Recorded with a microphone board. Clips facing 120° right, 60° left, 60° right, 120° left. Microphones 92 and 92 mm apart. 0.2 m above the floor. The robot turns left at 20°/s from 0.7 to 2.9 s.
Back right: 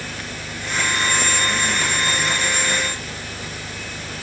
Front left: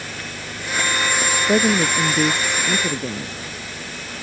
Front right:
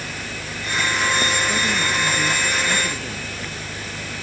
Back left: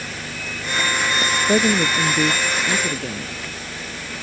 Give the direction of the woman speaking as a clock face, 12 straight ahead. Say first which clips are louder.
Front left 6 dB, back left 5 dB; 9 o'clock.